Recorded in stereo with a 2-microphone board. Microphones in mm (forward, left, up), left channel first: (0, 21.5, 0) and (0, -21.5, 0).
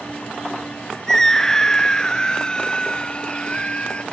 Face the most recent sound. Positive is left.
turn(degrees=30)  # may be behind; listen again after turning